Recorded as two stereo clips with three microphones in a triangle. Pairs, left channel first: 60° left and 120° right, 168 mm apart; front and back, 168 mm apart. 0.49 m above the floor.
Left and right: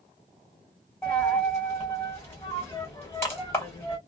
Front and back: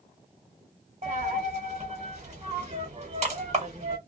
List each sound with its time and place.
1.0 s a dropped coin: 135° left, 1.4 m